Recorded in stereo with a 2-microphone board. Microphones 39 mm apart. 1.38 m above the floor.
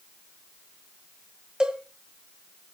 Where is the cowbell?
25° right (ahead or behind), 2.0 m.